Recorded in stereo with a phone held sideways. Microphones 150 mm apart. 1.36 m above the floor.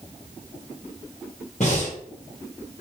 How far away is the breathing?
About 1.0 m.